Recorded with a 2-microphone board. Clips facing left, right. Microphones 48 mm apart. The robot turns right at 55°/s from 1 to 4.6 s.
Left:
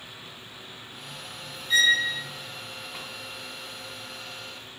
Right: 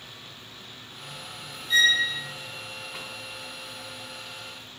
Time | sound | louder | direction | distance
1.7 | a violin | even | centre (ahead or behind) | 1.5 m